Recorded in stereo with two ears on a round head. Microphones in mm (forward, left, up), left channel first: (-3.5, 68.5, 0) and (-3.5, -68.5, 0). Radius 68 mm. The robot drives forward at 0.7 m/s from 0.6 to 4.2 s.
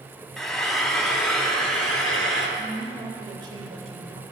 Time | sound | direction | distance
0.4 | frying | 5° left (ahead or behind) | 1.0 m
2.6 | a woman speaking | 25° right (ahead or behind) | 1.6 m